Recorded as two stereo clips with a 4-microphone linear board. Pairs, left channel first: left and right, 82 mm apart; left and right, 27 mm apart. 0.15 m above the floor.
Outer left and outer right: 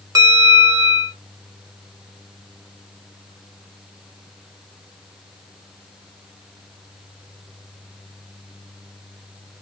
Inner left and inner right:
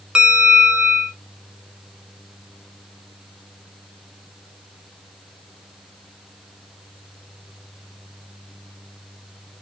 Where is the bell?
40° right (ahead or behind), 1.1 m.